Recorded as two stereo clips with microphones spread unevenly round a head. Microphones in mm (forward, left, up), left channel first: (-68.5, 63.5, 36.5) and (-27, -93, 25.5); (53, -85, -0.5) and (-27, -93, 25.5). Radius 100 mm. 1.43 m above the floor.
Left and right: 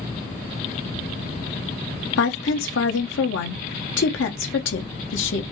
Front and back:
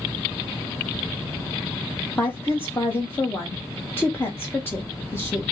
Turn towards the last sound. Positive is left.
turn(degrees=90)